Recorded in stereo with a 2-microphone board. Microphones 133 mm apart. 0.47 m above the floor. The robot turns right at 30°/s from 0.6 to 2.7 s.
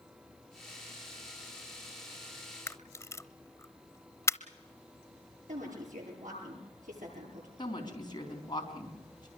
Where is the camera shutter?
20° left (ahead or behind), 0.7 m.